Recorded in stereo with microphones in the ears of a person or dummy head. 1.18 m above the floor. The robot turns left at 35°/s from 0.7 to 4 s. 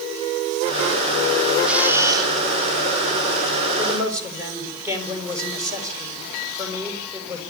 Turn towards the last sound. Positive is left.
turn(degrees=-20)  # may be behind; listen again after turning